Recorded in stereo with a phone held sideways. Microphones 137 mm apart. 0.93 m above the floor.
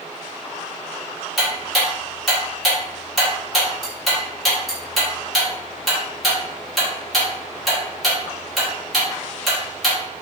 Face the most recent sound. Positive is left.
turn(degrees=0)  # may be behind; listen again after turning